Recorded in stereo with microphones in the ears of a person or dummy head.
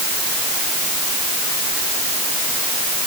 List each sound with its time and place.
Only background noise.